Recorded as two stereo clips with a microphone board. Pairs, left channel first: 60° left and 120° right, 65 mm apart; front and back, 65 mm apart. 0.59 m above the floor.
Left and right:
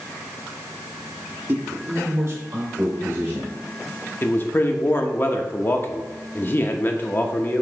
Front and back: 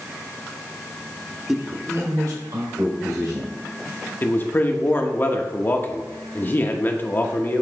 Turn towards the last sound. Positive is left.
turn(degrees=30)